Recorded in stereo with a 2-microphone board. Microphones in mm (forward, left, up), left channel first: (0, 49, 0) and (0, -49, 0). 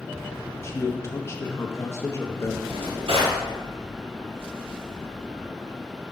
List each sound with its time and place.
0.6 s a man speaking: 30° left (ahead or behind), 0.7 m
2.6 s a drawer: 80° right, 2 m